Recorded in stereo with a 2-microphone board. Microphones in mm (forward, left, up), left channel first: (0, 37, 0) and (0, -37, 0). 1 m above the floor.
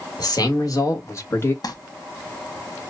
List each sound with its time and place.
0.2 s a man speaking: 60° left (ahead or behind), 1.5 m; by 1.5 s 35° left (ahead or behind), 1.2 m
1.6 s crumpling: 60° left (ahead or behind), 1.0 m